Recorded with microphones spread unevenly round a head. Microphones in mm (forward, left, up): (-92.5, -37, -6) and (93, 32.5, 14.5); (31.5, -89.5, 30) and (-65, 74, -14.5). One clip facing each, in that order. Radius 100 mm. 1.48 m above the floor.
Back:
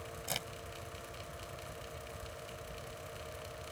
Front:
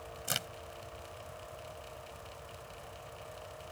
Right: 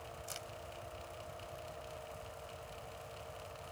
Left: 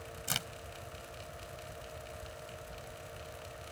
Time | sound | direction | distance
0.3 | a crack | 100° left | ?